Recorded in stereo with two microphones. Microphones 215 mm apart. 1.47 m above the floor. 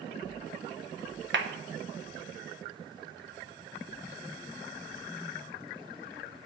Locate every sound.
1.3 s a clap: 60° right (ahead or behind), 0.7 m